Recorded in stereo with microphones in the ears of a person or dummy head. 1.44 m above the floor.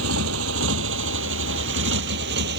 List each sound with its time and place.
0.0 s a motorcycle: 85° right; by 2.6 s 65° right (ahead or behind)